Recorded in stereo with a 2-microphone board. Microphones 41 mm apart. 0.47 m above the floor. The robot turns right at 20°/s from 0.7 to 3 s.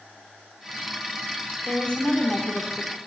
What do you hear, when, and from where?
1.7 s a woman speaking: 30° left (ahead or behind), 0.8 m; by 3.0 s 20° left (ahead or behind), 0.8 m